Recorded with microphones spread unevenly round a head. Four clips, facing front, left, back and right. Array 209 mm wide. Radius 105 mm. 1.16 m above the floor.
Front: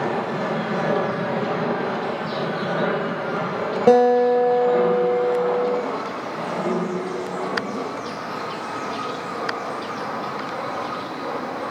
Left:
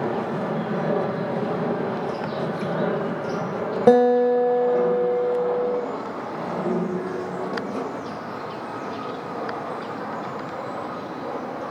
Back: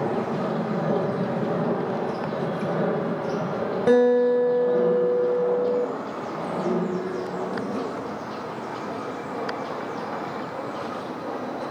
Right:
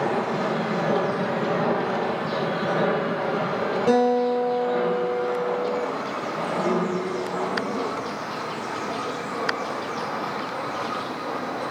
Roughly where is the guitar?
Ahead left.